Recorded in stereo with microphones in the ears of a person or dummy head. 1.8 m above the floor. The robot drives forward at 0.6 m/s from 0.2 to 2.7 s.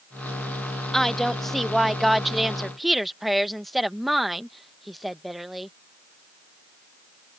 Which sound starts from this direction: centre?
A woman speaking, at 0.9 s.